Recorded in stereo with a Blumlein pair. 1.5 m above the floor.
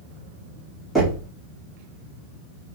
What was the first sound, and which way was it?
Knocking, 10° right.